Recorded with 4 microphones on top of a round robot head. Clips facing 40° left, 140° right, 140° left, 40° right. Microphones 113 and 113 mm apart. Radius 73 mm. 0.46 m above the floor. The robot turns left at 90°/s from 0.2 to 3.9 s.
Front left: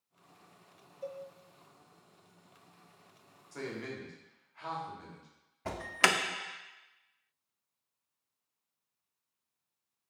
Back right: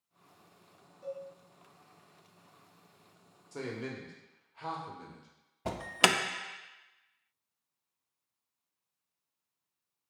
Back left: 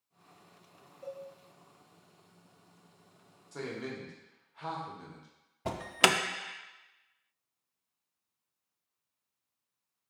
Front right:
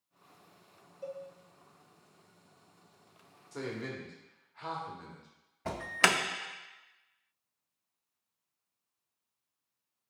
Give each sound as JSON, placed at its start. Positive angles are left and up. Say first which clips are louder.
{"t": 1.0, "sound": "a cowbell", "louder": "back right 1 dB, front right 1 dB", "azimuth_deg": 15, "distance_m": 0.8}
{"t": 3.5, "sound": "a man speaking", "louder": "back right 1 dB, even", "azimuth_deg": -120, "distance_m": 1.2}
{"t": 5.7, "sound": "an alarm", "louder": "back right 1 dB, back left 1 dB", "azimuth_deg": -175, "distance_m": 0.5}